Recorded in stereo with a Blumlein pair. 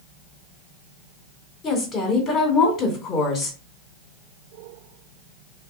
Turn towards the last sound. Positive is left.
turn(degrees=25)